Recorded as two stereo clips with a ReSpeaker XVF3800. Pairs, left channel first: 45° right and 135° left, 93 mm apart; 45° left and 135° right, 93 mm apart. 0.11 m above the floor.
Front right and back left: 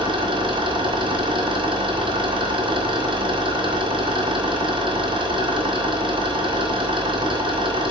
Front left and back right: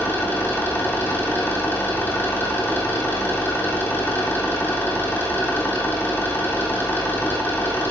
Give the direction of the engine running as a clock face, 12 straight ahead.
8 o'clock.